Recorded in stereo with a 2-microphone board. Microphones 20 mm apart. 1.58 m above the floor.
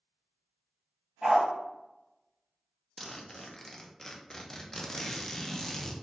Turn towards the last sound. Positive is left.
turn(degrees=25)  # may be behind; listen again after turning